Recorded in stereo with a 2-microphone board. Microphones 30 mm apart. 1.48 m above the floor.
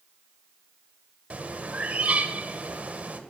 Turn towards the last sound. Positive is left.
turn(degrees=-40)  # may be behind; listen again after turning